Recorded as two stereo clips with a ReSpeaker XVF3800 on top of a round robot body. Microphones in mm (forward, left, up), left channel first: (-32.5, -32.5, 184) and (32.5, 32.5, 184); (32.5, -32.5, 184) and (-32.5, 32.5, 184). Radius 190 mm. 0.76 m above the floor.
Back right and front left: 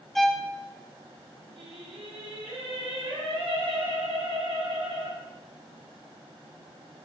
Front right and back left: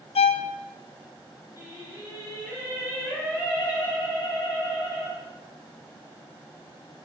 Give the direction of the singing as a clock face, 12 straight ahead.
11 o'clock.